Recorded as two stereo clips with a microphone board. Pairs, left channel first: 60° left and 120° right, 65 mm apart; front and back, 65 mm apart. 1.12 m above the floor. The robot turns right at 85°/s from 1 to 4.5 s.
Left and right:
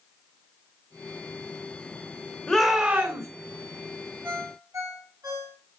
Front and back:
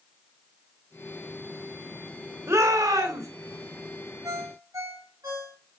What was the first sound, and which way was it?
A shout, 140° left.